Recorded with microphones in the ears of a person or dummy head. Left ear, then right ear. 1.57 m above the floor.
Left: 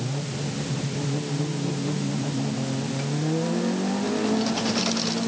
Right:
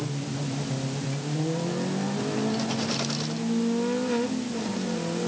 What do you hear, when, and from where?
Only background noise.